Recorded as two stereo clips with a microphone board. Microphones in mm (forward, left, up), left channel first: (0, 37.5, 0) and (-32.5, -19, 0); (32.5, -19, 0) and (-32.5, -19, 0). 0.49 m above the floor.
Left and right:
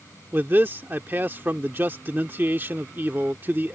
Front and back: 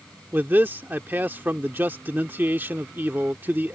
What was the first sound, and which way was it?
A man speaking, 150° right.